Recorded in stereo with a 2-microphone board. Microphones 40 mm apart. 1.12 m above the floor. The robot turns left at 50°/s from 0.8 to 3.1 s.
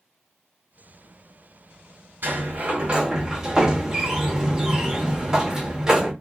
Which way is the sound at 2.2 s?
115° right.